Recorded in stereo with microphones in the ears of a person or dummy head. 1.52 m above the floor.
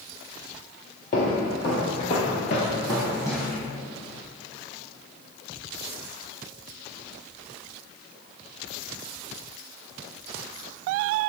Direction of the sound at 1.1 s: 40° left (ahead or behind).